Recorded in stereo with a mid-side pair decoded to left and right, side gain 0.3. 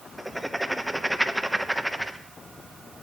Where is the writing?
Straight ahead, 1.2 m.